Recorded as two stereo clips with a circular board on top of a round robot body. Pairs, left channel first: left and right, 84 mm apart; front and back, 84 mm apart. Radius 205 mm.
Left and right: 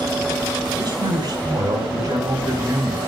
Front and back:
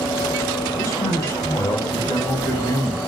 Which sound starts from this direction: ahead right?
A man speaking, at 0.8 s.